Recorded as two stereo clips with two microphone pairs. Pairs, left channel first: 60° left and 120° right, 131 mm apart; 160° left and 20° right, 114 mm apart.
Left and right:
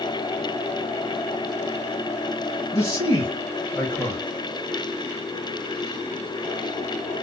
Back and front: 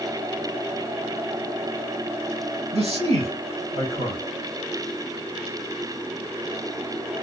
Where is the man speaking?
5° right, 3.5 m.